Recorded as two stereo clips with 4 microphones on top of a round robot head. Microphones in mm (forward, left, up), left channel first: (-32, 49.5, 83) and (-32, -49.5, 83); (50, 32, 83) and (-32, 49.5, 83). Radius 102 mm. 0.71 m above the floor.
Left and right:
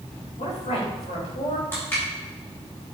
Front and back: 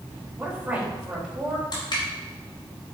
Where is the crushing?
20° left, 4 m.